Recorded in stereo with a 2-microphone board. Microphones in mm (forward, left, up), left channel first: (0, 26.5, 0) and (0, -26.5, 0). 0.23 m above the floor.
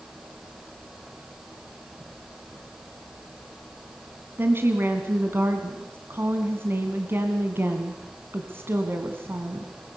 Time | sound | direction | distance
4.4 | a woman speaking | 50° right (ahead or behind) | 2 m